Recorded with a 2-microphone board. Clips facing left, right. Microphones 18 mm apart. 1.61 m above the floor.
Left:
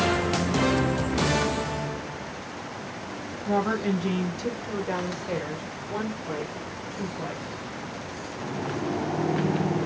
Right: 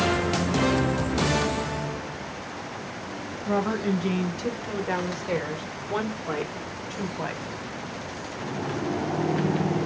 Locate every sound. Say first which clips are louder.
3.5 s a woman speaking: even; centre (ahead or behind), 1.8 m; by 7.5 s 65° right (ahead or behind), 1.2 m